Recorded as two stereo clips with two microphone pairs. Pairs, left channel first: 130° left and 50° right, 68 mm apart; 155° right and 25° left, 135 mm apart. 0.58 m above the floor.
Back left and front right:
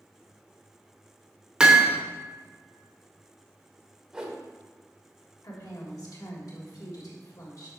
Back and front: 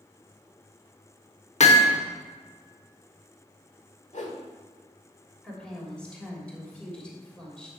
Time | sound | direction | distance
1.6 | hammering | 130° right | 1.0 m
4.1 | a whoosh | 130° right | 1.3 m
5.4 | a woman speaking | 120° left | 2.5 m